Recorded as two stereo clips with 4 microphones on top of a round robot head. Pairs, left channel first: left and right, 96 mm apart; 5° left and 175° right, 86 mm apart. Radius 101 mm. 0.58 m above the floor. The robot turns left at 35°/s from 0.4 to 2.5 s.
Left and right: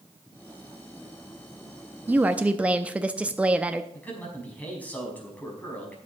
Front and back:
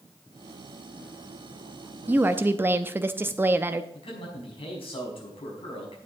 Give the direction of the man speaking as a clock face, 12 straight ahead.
11 o'clock.